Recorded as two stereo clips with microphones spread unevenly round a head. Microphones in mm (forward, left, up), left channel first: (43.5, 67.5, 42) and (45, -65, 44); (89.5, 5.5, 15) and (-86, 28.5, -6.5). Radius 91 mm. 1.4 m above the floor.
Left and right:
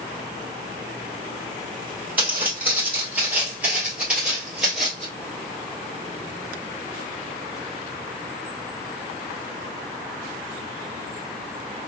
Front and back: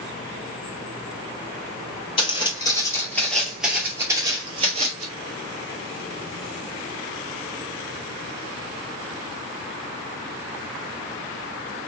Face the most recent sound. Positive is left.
turn(degrees=-175)